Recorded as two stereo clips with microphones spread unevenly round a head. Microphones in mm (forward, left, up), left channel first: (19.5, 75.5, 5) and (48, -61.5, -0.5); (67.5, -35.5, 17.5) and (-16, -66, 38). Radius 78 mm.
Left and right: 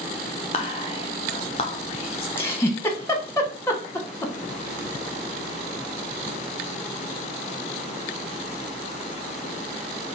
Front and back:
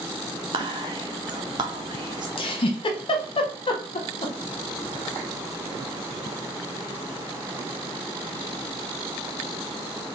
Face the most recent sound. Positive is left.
turn(degrees=30)